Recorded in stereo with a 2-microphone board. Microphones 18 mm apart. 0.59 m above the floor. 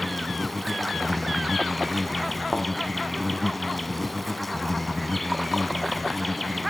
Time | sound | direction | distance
0.0 | an insect | 5° left (ahead or behind) | 0.8 m
2.5 | a thud | 20° right (ahead or behind) | 4.5 m